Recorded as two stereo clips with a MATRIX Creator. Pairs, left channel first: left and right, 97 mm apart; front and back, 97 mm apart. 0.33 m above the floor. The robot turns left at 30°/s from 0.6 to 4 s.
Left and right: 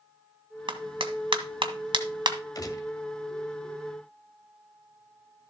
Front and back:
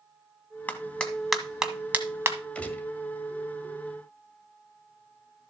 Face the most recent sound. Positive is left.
turn(degrees=30)